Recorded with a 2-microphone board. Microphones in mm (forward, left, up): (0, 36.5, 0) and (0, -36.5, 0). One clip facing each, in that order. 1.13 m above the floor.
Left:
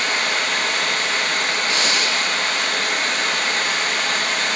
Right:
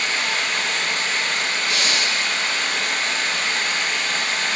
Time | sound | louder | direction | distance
0.0 | running water | left 2 dB | 60° left (ahead or behind) | 0.9 m
1.7 | breathing | left 2 dB | 35° left (ahead or behind) | 1.1 m